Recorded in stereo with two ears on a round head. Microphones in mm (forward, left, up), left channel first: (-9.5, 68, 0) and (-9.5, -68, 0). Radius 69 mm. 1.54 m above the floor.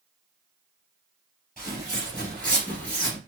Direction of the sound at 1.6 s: Centre (ahead or behind).